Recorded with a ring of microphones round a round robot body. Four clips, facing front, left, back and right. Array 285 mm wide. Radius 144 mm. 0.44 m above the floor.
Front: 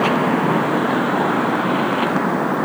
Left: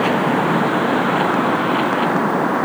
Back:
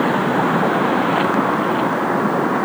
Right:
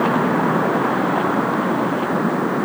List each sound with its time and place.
Only background noise.